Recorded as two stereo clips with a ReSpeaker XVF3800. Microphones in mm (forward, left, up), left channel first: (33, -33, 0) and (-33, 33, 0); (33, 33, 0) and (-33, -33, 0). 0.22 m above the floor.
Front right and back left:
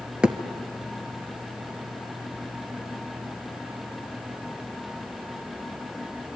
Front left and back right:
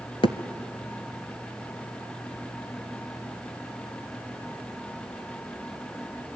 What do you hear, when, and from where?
0.2 s a thud: 55° left, 1.2 m